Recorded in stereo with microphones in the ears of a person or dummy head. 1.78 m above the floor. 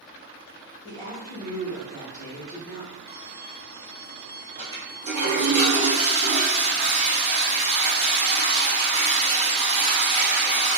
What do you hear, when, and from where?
0.8 s a woman speaking: 65° left (ahead or behind), 2.0 m
3.1 s a violin: 10° left (ahead or behind), 1.6 m
4.6 s a toilet flushing: 35° right (ahead or behind), 1.4 m